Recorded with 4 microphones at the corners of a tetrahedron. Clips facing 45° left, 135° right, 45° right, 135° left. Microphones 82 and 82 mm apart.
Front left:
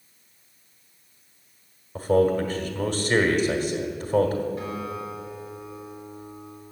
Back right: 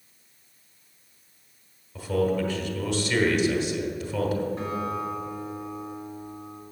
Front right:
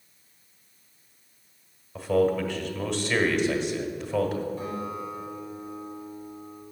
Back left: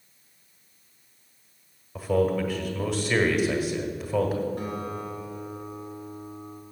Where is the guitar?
165° left, 2.5 m.